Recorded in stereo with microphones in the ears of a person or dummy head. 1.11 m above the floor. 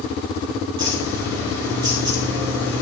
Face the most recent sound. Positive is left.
turn(degrees=-25)  # may be behind; listen again after turning